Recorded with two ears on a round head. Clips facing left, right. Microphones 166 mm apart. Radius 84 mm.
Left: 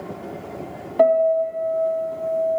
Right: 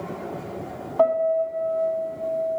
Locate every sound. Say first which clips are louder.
1.0 s a piano: left 4 dB; 20° left (ahead or behind), 1.2 m